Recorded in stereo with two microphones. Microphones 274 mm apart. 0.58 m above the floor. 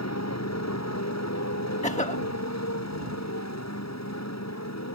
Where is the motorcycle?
75° left (ahead or behind); by 5.0 s 80° left.